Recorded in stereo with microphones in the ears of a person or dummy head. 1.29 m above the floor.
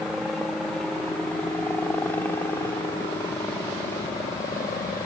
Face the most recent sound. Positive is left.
turn(degrees=15)  # may be behind; listen again after turning